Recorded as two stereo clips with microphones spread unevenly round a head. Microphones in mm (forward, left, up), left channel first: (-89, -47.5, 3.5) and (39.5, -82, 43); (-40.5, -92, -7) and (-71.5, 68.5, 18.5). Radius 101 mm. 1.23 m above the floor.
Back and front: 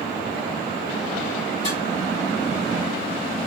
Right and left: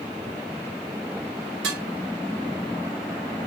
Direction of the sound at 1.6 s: 90° left.